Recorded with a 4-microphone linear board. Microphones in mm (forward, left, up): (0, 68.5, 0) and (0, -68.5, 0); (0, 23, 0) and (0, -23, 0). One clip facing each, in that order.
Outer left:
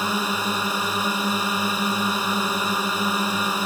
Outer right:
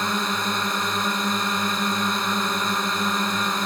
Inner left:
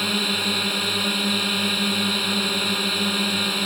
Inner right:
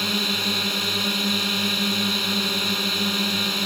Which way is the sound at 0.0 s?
5° left (ahead or behind).